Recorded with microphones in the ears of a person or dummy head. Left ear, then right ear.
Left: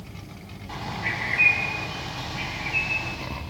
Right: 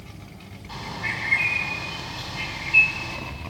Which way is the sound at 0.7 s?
15° left (ahead or behind).